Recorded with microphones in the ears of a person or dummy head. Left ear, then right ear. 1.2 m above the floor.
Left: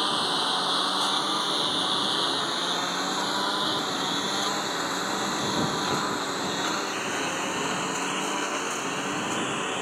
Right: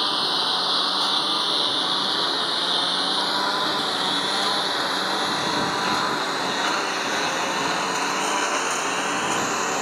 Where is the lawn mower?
10° right (ahead or behind); by 9.8 s 35° right (ahead or behind).